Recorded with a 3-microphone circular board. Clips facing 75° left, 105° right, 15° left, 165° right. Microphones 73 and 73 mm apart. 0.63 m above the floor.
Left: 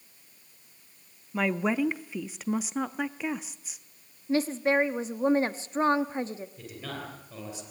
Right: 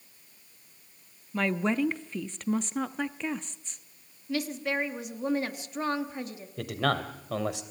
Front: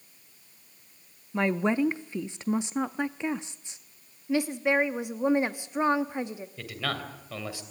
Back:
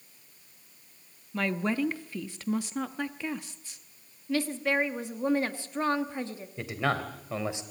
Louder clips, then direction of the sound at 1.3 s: Left 1 dB, front 4 dB; 10° left.